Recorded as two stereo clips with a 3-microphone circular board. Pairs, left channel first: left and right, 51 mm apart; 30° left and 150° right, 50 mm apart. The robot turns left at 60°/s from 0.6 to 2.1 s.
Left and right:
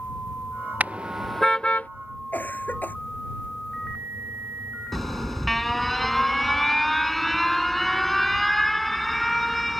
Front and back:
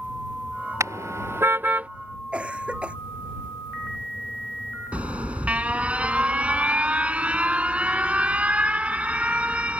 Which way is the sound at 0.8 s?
145° right.